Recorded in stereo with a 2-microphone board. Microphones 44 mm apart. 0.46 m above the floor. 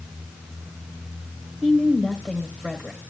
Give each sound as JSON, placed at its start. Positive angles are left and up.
{"t": 1.6, "sound": "a woman speaking", "side_deg": -10, "distance_m": 1.5}